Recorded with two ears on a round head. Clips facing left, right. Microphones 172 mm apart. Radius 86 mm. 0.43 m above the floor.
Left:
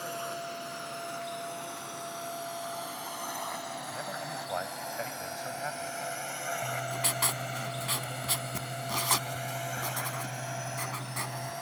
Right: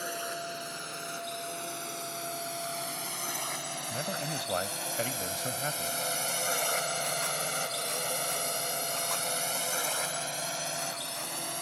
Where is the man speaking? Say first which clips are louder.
Right 7 dB; 45° right (ahead or behind).